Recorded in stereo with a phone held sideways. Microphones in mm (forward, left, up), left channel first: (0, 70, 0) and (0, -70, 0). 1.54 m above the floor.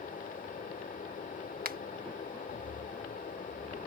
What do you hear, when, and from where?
0.0 s a fan: 70° left (ahead or behind)
1.6 s a finger snap: 80° right